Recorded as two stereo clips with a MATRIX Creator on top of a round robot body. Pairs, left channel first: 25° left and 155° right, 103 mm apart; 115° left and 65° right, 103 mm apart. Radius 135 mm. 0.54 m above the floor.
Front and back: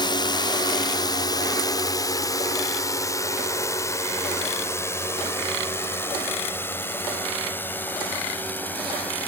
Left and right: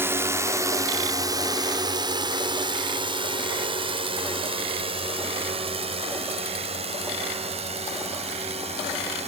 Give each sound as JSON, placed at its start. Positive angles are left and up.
{"t": 0.0, "sound": "a drone", "azimuth_deg": -5}